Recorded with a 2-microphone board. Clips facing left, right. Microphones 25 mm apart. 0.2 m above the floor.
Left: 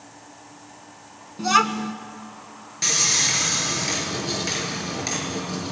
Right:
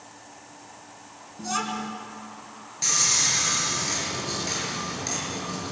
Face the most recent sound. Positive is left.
turn(degrees=25)  # may be behind; listen again after turning